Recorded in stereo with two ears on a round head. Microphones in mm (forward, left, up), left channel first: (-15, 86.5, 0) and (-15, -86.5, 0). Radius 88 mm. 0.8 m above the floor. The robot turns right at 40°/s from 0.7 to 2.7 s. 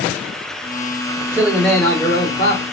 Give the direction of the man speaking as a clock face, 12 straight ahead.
12 o'clock.